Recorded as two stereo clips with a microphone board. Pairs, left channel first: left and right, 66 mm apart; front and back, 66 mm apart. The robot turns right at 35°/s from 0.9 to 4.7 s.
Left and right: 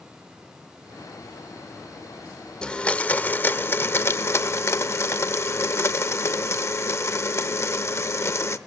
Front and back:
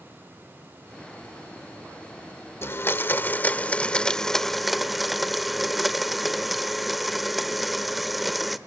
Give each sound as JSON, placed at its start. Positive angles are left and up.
{"t": 2.6, "sound": "a blender", "azimuth_deg": 20, "distance_m": 0.7}